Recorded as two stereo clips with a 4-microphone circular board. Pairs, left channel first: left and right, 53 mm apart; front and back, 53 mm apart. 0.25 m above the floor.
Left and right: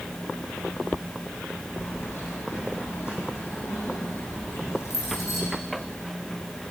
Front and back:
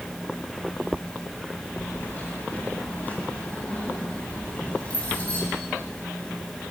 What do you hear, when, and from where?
1.8 s keys jangling: 50° left, 9.5 m; by 5.4 s 65° left, 11.5 m